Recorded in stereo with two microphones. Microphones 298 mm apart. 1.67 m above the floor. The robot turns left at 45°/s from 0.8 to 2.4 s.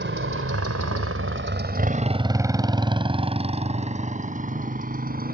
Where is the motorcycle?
40° right (ahead or behind); by 5.3 s 30° right (ahead or behind).